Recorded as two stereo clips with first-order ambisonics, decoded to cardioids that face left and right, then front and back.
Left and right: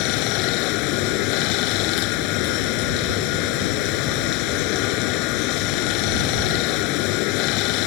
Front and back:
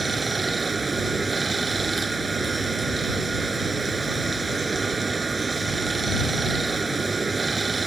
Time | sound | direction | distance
0.0 | running water | 100° left | ?